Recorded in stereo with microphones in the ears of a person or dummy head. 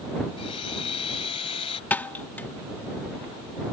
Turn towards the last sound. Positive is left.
turn(degrees=10)  # may be behind; listen again after turning